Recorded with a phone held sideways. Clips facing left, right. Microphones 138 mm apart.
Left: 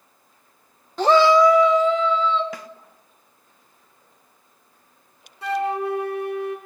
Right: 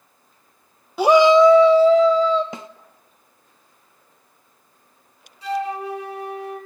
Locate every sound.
1.0 s a shout: 10° right (ahead or behind), 0.7 m; by 2.4 s 40° right (ahead or behind), 1.0 m
2.5 s a snare drum: 25° right (ahead or behind), 0.7 m
5.4 s a flute: 70° left (ahead or behind), 2.5 m